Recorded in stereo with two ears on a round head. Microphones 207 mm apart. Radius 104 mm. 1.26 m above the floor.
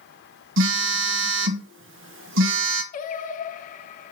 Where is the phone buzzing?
60° right (ahead or behind), 1.4 m.